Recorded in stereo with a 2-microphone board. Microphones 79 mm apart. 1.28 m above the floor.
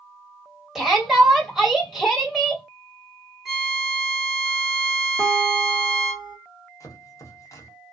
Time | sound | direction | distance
0.8 | a shout | 5° right (ahead or behind) | 1.6 m
3.5 | a violin | 5° right (ahead or behind) | 1.0 m
5.2 | a guitar | 30° right (ahead or behind) | 1.2 m
6.8 | chopping | 45° left (ahead or behind) | 0.8 m